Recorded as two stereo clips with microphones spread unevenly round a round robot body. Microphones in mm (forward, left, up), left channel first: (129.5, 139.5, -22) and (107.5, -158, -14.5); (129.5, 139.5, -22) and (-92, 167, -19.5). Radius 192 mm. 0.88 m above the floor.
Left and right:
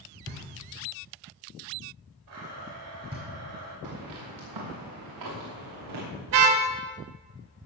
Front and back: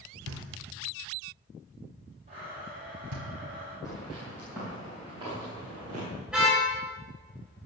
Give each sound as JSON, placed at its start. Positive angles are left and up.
{"t": 0.3, "sound": "knocking", "azimuth_deg": -160, "distance_m": 2.0}
{"t": 2.3, "sound": "a blender", "azimuth_deg": -120, "distance_m": 4.5}
{"t": 3.8, "sound": "footsteps", "azimuth_deg": -95, "distance_m": 8.0}
{"t": 6.3, "sound": "a car horn", "azimuth_deg": -100, "distance_m": 2.0}